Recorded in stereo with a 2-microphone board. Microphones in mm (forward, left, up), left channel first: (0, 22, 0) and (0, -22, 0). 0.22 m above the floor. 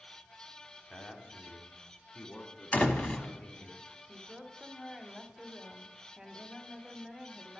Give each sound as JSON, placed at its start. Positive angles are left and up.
{"t": 0.9, "sound": "a man speaking", "side_deg": 25, "distance_m": 1.4}
{"t": 2.7, "sound": "a door slam", "side_deg": 30, "distance_m": 1.0}
{"t": 4.1, "sound": "a woman speaking", "side_deg": -10, "distance_m": 1.0}